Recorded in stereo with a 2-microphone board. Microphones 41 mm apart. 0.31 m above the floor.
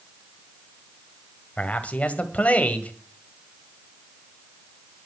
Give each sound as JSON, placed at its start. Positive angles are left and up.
{"t": 1.6, "sound": "a man speaking", "side_deg": 35, "distance_m": 1.7}